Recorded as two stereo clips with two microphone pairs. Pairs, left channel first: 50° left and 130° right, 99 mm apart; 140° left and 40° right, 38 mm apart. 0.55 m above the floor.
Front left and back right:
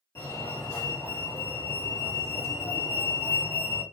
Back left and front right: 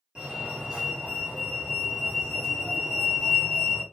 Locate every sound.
0.1 s a fire alarm: 15° left, 2 m